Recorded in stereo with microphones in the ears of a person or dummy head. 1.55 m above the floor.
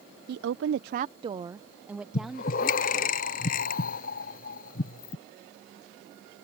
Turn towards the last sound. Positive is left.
turn(degrees=55)  # may be behind; listen again after turning